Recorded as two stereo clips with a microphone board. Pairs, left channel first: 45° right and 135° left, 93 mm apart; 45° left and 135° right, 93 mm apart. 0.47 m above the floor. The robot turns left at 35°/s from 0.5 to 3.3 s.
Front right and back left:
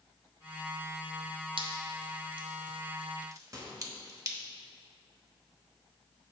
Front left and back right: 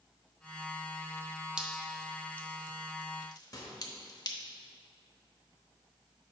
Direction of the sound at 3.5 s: 90° left.